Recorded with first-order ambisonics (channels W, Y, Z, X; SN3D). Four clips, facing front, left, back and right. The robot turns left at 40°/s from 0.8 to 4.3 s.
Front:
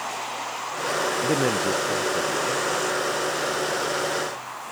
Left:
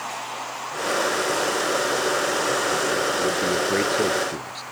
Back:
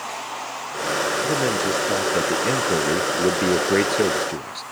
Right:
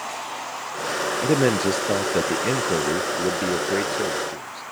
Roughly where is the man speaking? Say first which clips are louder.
Right 3 dB, back 1 dB; right.